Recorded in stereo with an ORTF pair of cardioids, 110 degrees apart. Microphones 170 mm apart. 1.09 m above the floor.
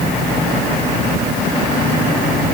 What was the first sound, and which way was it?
Only background noise.